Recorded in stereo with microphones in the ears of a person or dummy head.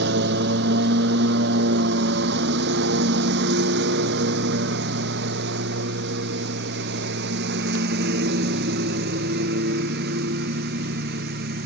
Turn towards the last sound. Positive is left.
turn(degrees=-60)  # may be behind; listen again after turning